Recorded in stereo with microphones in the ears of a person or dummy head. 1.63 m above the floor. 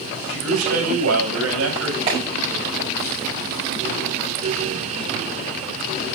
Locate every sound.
0.3 s a man speaking: 70° right (ahead or behind), 7 m
2.1 s a clap: 30° right (ahead or behind), 6.5 m